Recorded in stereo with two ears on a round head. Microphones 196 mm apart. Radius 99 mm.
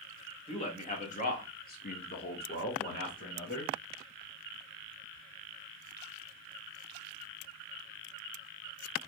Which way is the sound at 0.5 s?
30° left (ahead or behind).